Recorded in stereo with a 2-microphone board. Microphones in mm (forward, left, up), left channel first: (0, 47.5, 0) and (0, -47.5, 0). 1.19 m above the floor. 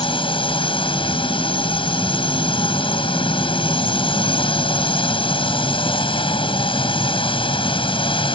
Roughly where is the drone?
Left.